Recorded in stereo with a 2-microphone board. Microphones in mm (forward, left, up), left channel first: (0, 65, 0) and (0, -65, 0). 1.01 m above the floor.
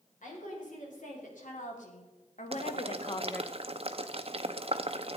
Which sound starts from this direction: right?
Boiling, at 2.5 s.